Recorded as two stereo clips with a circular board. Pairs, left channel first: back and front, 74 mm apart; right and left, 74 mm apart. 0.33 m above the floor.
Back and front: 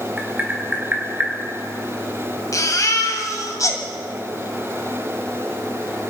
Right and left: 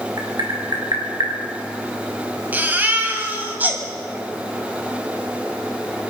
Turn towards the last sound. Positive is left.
turn(degrees=150)